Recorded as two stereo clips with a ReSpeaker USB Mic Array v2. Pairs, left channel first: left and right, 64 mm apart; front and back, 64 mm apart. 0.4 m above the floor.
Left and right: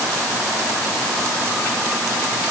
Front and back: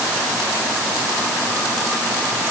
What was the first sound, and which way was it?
Only background noise.